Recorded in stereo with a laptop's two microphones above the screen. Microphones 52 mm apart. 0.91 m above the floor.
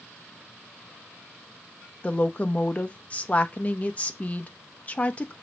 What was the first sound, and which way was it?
A woman speaking, 30° left (ahead or behind).